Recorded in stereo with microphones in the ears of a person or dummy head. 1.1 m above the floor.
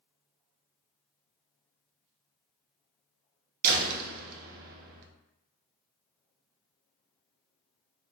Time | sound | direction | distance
3.6 | a door slam | 50° right (ahead or behind) | 0.5 m